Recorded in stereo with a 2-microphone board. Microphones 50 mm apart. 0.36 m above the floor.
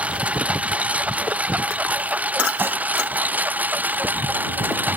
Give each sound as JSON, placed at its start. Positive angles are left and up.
{"t": 0.0, "sound": "a lawn mower", "side_deg": -25}
{"t": 2.6, "sound": "dishes clattering", "side_deg": -45}